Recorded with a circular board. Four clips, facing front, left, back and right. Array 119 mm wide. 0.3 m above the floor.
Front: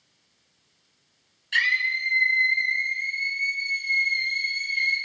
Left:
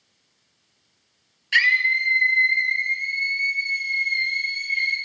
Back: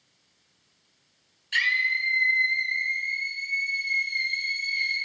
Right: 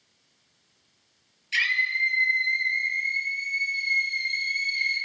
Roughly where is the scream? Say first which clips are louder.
Left 6 dB, front 1 dB; left.